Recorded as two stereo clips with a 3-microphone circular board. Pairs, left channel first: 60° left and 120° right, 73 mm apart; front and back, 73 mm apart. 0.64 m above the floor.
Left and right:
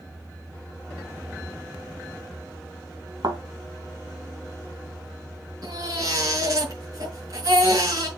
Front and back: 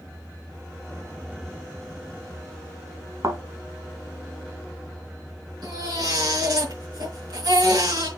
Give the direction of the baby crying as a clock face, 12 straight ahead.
5 o'clock.